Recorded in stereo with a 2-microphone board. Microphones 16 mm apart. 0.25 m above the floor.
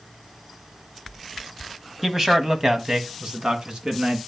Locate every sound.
2.0 s a man speaking: 30° right (ahead or behind), 1.4 m; by 4.2 s 65° right (ahead or behind), 2.5 m